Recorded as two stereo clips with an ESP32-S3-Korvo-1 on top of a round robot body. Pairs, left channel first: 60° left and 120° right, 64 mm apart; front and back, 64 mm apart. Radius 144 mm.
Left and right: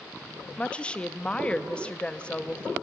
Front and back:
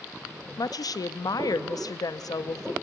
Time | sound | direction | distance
0.6 | a woman speaking | 10° right | 0.9 m